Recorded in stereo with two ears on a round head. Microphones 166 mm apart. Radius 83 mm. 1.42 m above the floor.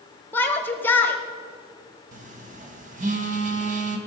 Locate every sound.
0.3 s a shout: 10° left (ahead or behind), 0.9 m
2.1 s a phone buzzing: 45° right (ahead or behind), 1.6 m